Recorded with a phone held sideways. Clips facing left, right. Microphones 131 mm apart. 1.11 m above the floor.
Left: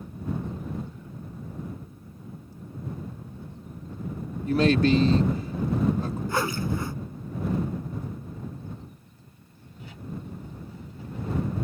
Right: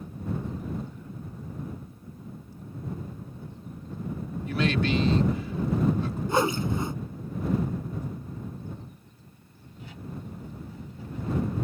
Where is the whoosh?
20° right (ahead or behind).